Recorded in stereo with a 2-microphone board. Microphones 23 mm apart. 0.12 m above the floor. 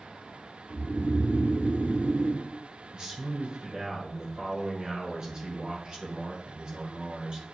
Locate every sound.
0.7 s snoring: 75° right (ahead or behind), 0.8 m
2.9 s a man speaking: 35° right (ahead or behind), 1.5 m